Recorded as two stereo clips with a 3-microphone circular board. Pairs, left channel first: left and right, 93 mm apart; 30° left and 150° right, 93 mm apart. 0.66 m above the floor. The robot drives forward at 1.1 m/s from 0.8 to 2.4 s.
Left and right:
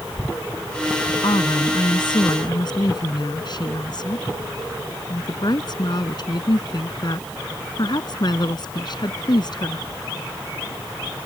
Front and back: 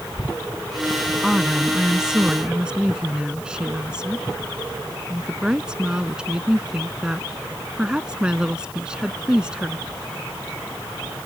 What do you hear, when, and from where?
1.2 s a woman speaking: 120° left; by 9.9 s 130° left